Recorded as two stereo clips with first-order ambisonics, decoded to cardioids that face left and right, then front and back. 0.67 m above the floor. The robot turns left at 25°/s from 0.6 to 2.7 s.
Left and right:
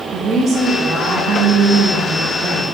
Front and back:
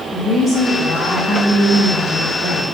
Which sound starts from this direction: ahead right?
A woman speaking, at 0.1 s.